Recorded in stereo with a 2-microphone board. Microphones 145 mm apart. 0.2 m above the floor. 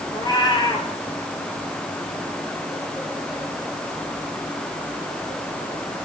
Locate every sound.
0.1 s a cat meowing: 30° left (ahead or behind), 1.4 m